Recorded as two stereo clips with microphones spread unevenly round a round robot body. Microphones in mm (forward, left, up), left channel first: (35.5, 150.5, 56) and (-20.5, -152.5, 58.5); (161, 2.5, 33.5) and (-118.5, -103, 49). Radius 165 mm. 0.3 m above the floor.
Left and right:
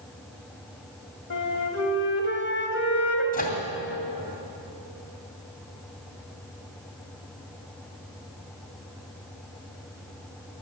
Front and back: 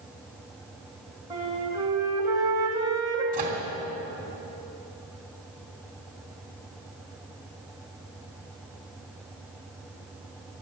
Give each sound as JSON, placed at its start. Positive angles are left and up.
{"t": 1.3, "sound": "a flute", "azimuth_deg": 125, "distance_m": 2.5}
{"t": 3.3, "sound": "a microwave", "azimuth_deg": 140, "distance_m": 2.5}